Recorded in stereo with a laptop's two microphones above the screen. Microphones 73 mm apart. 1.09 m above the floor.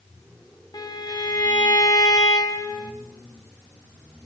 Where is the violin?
70° left (ahead or behind), 2.5 m.